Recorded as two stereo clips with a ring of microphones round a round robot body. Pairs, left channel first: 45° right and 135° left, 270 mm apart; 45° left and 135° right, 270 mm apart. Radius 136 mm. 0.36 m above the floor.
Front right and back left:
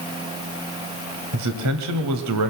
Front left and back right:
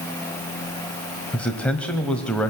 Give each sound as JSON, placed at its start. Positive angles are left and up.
{"t": 1.3, "sound": "a man speaking", "azimuth_deg": 130, "distance_m": 1.7}